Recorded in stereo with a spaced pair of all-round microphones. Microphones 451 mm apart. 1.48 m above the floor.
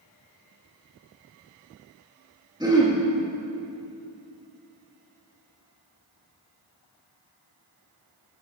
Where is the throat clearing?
10° right (ahead or behind), 2.5 m.